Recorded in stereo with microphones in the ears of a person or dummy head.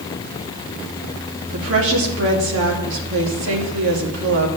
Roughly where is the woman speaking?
Right.